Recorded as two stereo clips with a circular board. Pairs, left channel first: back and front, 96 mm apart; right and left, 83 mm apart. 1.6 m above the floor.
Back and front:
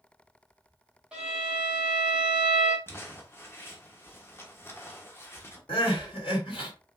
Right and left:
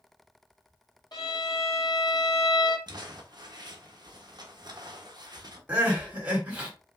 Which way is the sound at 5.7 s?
160° left.